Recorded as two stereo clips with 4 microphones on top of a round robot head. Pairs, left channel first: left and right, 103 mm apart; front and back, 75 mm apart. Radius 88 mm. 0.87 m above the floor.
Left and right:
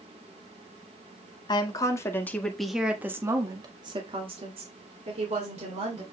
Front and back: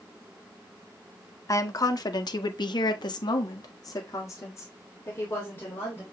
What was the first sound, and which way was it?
A woman speaking, 40° left.